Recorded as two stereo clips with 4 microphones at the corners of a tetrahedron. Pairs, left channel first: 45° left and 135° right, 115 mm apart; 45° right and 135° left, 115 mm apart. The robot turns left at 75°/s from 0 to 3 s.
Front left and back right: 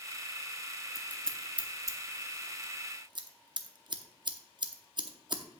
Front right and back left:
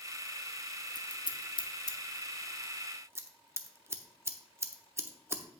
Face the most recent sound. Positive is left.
turn(degrees=-165)